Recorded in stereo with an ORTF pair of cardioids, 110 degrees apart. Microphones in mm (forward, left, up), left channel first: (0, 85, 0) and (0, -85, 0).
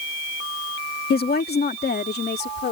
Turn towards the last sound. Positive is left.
turn(degrees=70)